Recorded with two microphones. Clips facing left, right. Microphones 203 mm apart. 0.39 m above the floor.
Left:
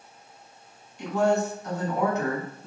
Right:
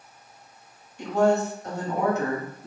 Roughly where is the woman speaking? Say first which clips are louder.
Right 2 dB; right.